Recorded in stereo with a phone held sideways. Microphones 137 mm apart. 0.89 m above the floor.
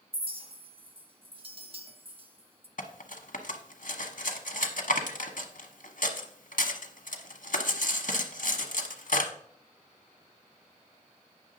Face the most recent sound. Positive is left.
turn(degrees=80)